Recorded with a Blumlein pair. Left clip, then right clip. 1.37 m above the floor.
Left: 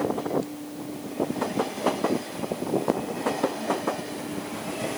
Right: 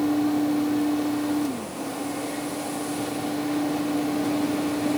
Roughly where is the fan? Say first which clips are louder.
Right 3 dB; ahead right.